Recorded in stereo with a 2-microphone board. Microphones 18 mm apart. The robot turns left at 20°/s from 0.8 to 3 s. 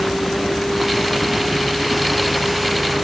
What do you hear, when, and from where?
0.0 s a vehicle: 35° left; by 3.0 s 10° right